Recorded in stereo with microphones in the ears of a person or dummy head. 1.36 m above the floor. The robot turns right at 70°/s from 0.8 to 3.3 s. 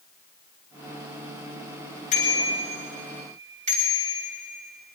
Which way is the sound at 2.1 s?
45° left (ahead or behind).